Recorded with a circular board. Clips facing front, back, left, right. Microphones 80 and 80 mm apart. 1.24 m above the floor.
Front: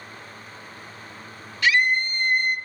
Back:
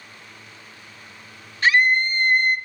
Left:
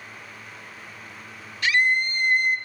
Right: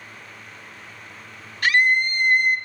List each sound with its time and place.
1.6 s a scream: 130° right, 2 m